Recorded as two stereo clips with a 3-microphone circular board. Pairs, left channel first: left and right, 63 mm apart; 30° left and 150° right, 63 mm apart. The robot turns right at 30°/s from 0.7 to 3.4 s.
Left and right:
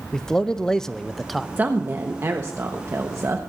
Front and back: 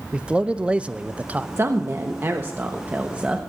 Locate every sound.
0.1 s a man speaking: 160° left, 0.5 m; by 1.5 s straight behind, 0.5 m
1.6 s a woman speaking: 140° right, 1.1 m; by 3.4 s 85° right, 1.1 m